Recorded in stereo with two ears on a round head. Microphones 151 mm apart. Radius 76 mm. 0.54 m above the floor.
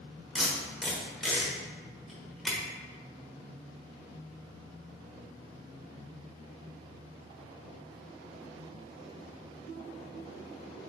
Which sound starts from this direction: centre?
Tape being pulled, at 0.3 s.